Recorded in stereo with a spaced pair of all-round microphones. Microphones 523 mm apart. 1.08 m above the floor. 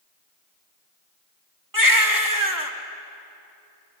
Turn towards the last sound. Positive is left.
turn(degrees=-35)  # may be behind; listen again after turning